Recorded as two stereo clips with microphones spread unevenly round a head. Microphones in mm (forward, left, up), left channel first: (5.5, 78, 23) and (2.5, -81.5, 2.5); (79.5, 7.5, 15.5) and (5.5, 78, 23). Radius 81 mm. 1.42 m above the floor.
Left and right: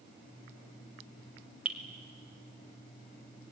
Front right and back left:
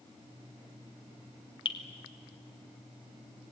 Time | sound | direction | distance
1.6 | dripping | 5° right | 2.5 m